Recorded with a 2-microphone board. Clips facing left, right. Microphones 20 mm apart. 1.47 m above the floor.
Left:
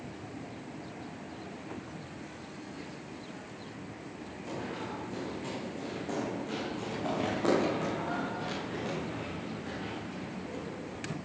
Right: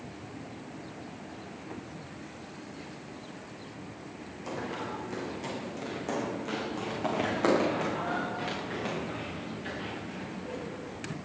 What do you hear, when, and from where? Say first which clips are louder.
4.5 s running footsteps: right 3 dB; 70° right (ahead or behind), 5.5 m; by 11.0 s 65° right (ahead or behind), 9.5 m